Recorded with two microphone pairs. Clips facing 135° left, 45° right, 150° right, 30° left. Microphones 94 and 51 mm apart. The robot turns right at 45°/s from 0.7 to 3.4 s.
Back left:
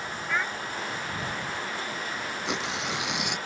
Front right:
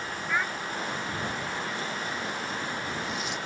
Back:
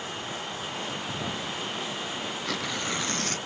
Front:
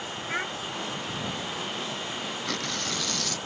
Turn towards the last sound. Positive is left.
turn(degrees=160)